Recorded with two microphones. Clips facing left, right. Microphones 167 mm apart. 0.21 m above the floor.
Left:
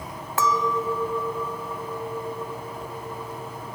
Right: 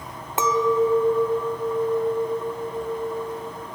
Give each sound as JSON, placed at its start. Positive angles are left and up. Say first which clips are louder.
{"t": 0.4, "sound": "a clink", "louder": "right 5 dB", "side_deg": -20, "distance_m": 0.6}